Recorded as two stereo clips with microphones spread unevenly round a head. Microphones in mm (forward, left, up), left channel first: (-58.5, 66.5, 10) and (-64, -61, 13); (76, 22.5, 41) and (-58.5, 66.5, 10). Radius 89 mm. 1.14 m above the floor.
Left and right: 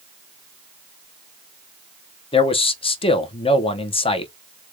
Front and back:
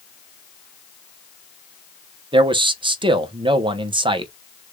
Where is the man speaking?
125° left, 0.8 m.